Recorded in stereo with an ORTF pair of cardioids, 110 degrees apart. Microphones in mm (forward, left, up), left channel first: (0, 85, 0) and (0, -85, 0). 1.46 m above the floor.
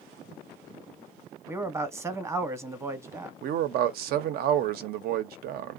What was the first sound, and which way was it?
A man speaking, 15° right.